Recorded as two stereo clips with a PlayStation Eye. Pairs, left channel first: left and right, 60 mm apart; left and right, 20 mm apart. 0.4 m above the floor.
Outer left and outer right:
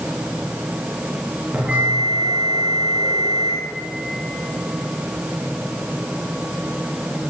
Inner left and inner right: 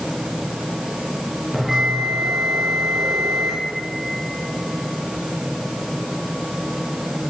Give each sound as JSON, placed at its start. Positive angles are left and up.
{"t": 1.5, "sound": "a bell", "side_deg": -25, "distance_m": 9.5}